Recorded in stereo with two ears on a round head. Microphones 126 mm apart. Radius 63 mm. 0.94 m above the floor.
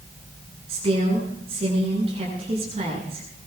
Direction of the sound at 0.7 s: 45° right (ahead or behind).